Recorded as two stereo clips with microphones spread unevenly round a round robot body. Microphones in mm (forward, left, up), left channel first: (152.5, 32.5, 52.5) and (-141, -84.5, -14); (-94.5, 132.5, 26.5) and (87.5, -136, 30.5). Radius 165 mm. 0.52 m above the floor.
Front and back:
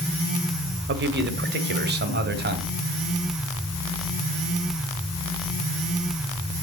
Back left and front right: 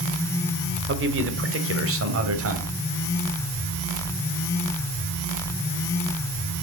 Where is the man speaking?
110° right, 2.0 m; by 2.7 s 105° right, 3 m.